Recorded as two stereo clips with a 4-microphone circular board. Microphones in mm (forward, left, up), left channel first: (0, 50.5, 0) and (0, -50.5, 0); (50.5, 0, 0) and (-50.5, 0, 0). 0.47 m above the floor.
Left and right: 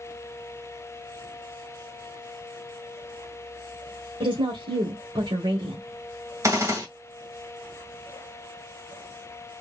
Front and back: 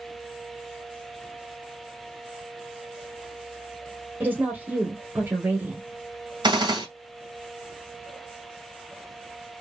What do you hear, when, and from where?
4.2 s a woman speaking: 110° right, 1.5 m
6.4 s a gunshot: 145° right, 2.5 m